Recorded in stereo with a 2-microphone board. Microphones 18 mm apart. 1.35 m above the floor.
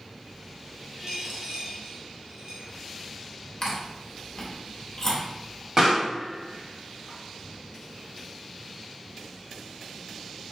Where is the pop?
35° right (ahead or behind), 3 m.